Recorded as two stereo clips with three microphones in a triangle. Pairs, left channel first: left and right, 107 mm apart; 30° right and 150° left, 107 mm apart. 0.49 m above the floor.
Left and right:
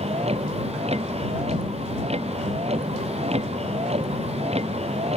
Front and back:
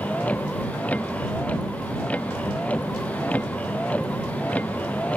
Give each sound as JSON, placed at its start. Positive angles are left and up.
{"t": 0.0, "sound": "a vehicle", "azimuth_deg": -105}